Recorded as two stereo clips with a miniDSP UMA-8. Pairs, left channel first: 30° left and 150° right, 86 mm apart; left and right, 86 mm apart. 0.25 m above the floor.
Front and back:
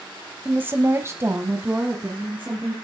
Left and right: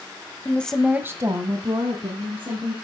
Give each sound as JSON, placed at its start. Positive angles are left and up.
{"t": 0.5, "sound": "a woman speaking", "azimuth_deg": 145, "distance_m": 1.2}